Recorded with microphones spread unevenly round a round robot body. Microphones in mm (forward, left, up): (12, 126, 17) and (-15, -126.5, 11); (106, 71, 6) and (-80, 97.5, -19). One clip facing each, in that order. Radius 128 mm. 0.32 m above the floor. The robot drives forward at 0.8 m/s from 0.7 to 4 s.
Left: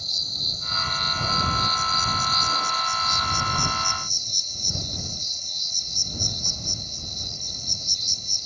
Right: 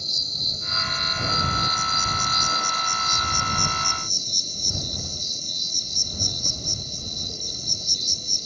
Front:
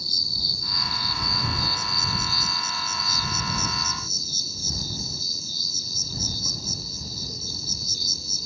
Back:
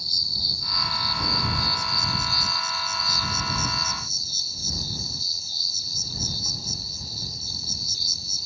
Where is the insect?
30° right; by 8.5 s 40° right.